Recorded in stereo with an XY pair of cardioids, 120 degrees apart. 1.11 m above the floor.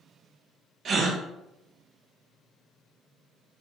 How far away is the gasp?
About 0.6 m.